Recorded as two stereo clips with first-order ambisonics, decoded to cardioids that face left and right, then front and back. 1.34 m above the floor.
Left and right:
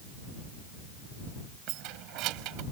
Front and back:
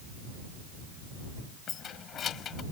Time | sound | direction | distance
1.7 | keys jangling | 60° right | ?